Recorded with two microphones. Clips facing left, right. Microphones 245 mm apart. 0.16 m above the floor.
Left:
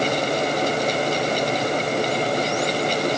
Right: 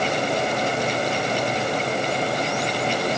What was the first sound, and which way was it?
Only background noise.